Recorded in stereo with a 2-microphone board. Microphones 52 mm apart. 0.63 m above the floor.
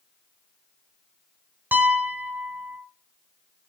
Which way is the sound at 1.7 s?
45° right (ahead or behind).